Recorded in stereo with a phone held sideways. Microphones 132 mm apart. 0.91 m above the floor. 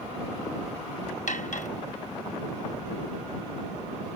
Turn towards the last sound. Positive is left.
turn(degrees=70)  # may be behind; listen again after turning